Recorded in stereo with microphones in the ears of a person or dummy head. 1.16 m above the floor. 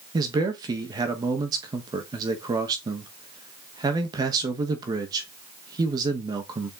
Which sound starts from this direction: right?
A man speaking, at 0.1 s.